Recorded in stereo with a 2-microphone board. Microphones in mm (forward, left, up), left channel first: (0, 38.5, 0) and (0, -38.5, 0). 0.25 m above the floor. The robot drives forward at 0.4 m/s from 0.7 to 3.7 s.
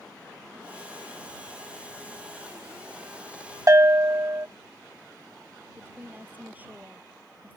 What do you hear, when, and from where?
3.7 s a bell: 40° right (ahead or behind)
5.8 s a woman speaking: 20° right (ahead or behind)